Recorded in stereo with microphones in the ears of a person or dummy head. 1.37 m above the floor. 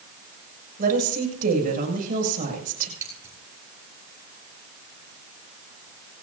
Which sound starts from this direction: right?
A woman speaking, at 0.8 s.